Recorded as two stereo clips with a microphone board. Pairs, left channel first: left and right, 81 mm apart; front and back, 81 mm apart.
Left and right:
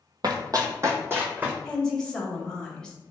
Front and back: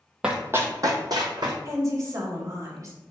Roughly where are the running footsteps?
Right.